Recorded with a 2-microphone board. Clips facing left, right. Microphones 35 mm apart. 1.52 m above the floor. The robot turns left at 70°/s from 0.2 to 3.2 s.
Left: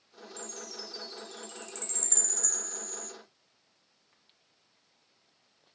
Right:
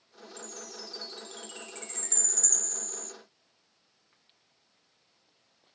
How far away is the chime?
About 0.5 m.